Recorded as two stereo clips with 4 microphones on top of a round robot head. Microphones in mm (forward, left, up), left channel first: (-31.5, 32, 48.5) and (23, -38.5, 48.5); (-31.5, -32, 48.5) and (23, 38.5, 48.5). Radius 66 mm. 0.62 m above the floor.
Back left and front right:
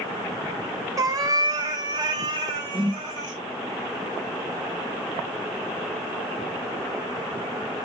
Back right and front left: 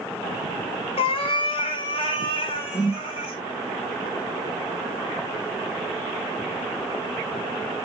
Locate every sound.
1.0 s a cat meowing: 105° right, 0.7 m; by 3.4 s 95° right, 2 m
2.7 s a whoosh: 75° right, 4 m